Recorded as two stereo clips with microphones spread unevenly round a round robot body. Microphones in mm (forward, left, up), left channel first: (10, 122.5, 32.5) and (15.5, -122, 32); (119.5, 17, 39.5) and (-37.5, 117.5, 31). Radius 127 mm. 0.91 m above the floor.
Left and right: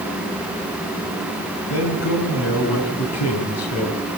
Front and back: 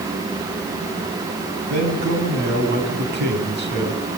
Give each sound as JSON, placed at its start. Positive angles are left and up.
{"t": 1.7, "sound": "a man speaking", "azimuth_deg": 125, "distance_m": 8.5}